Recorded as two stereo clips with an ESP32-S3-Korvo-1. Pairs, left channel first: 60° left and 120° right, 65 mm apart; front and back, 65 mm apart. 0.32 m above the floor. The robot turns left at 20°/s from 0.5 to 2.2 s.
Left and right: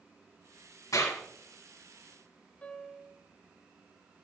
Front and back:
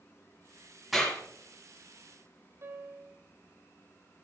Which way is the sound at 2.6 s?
135° left.